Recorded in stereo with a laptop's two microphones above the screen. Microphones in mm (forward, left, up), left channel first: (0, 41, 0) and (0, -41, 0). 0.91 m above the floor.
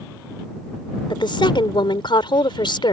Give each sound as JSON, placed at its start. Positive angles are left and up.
{"t": 1.1, "sound": "a woman speaking", "side_deg": 75}